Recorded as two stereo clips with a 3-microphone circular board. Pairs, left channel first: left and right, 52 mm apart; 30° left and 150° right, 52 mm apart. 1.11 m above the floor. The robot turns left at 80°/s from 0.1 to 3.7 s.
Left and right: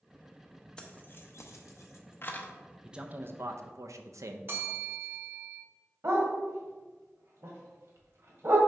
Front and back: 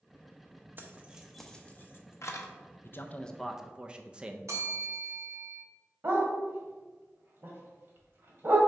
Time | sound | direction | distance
0.8 | keys jangling | 165° left | 0.8 m
2.8 | a man speaking | 10° right | 0.7 m
4.5 | a bell | 135° right | 1.5 m
6.0 | a dog barking | 110° right | 1.6 m